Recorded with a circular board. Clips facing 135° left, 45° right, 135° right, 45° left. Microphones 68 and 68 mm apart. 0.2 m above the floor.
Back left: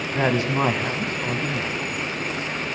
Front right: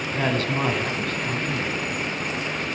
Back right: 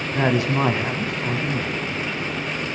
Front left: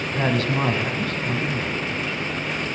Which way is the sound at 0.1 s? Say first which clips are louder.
Back left 3 dB, back right 2 dB; straight behind.